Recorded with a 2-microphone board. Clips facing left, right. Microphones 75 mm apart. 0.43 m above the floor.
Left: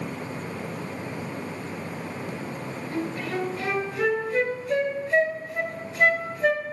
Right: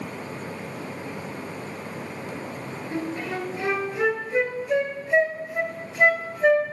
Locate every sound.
2.9 s a flute: 20° right (ahead or behind), 2.5 m